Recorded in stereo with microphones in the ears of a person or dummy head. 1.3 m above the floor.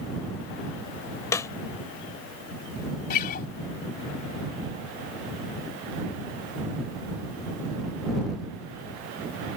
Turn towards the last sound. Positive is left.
turn(degrees=45)  # may be behind; listen again after turning